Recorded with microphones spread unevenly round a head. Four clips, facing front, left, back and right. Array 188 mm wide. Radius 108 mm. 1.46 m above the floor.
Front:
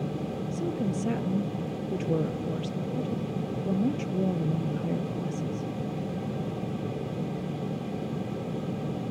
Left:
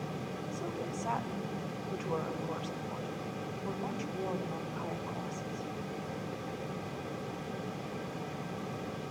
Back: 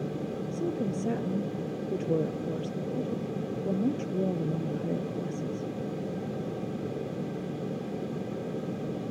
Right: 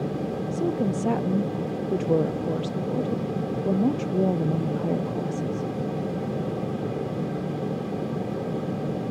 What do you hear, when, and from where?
0.5 s a woman speaking: 90° right, 0.8 m